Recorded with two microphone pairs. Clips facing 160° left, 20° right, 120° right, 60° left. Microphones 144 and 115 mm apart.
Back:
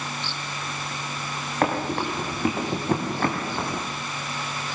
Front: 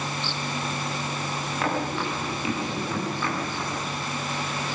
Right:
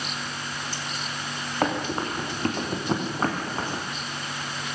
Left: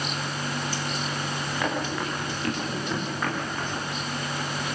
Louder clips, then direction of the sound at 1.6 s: Back 4 dB, right 4 dB; 165° right.